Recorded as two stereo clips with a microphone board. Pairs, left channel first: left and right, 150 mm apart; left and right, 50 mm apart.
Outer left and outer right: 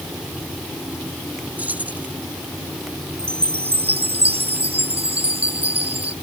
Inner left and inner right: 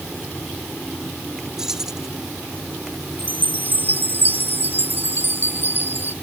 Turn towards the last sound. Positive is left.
turn(degrees=-40)  # may be behind; listen again after turning